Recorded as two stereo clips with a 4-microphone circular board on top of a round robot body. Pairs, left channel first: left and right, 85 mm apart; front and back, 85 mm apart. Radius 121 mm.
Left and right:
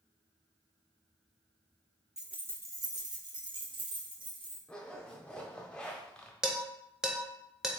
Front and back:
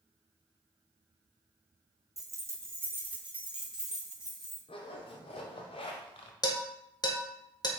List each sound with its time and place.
2.2 s keys jangling: 170° right, 0.6 m; by 4.6 s 95° right, 1.5 m
4.7 s a zipper: 10° left, 0.5 m
6.4 s dishes clattering: 10° right, 0.9 m